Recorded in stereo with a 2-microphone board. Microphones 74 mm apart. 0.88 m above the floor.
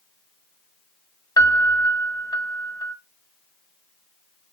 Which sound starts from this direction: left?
A piano, at 1.4 s.